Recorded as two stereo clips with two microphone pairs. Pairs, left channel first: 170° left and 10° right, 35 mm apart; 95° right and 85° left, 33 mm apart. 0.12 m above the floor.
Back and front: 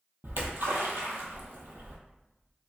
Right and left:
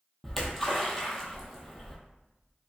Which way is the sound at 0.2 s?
5° right.